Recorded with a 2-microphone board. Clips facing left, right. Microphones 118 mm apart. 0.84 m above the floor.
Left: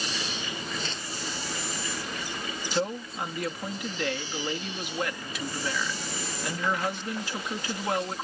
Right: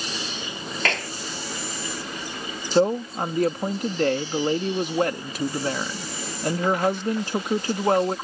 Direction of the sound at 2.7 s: 40° right (ahead or behind).